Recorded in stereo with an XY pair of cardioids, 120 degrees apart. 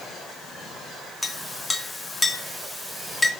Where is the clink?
15° left, 2.5 m.